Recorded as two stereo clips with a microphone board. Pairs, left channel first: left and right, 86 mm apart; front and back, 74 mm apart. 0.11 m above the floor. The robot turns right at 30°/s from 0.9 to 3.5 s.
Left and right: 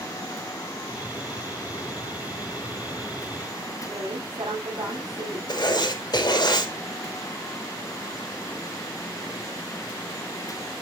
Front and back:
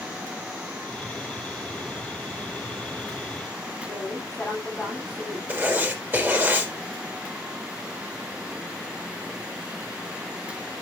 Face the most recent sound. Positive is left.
turn(degrees=115)